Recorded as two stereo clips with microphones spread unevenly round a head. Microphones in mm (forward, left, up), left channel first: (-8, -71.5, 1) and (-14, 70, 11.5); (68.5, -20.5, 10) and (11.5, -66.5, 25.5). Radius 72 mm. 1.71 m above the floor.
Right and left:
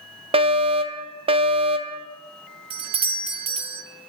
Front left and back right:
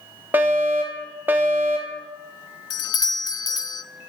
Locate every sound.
0.3 s a fire alarm: 145° left, 0.8 m
2.7 s a doorbell: 40° left, 0.6 m